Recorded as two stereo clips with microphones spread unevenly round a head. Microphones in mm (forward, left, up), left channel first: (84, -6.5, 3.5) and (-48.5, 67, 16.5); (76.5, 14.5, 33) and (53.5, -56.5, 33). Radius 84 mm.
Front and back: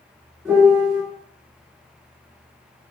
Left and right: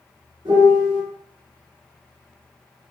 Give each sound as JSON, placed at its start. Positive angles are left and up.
{"t": 0.5, "sound": "a piano", "azimuth_deg": -120, "distance_m": 1.5}